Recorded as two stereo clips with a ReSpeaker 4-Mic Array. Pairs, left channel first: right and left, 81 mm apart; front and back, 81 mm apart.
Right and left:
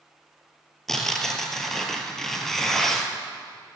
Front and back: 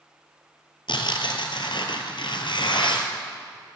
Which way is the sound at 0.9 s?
5° right.